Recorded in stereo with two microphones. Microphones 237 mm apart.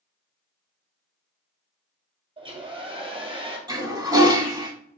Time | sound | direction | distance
2.4 | a hair dryer | 20° right (ahead or behind) | 1.1 m
3.7 | a toilet flushing | 15° right (ahead or behind) | 0.8 m